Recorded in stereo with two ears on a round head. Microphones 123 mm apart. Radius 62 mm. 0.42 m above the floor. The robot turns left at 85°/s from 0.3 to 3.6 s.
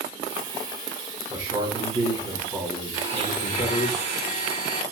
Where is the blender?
25° right, 1.6 m; by 4.8 s 80° right, 1.6 m.